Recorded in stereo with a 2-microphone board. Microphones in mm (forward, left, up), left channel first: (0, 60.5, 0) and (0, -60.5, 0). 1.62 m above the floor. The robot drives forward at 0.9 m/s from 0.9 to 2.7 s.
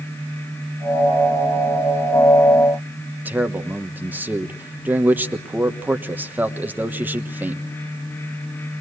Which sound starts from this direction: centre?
A man speaking, at 3.2 s.